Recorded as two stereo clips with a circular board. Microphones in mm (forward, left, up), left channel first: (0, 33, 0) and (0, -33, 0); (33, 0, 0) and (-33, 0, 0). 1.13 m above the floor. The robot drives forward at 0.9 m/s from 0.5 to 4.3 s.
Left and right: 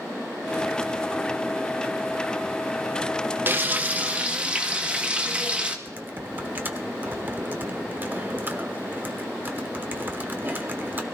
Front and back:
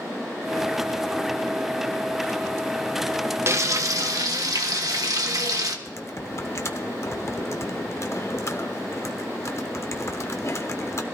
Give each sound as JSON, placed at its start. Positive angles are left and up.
{"t": 3.5, "sound": "frying", "azimuth_deg": -140, "distance_m": 0.9}
{"t": 5.8, "sound": "typing on a keyboard", "azimuth_deg": -35, "distance_m": 1.2}